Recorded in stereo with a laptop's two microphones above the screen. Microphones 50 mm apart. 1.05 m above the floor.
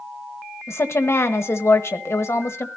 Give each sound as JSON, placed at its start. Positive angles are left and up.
{"t": 0.7, "sound": "a woman speaking", "side_deg": 60, "distance_m": 1.2}